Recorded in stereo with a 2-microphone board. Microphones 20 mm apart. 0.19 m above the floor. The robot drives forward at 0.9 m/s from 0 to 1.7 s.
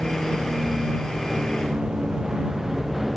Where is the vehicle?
85° right; by 3.2 s 10° right (ahead or behind).